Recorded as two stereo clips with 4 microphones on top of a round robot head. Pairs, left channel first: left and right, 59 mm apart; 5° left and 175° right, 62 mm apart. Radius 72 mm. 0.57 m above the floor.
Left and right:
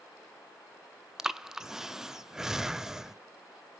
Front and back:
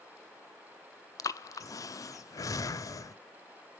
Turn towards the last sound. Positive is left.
turn(degrees=-10)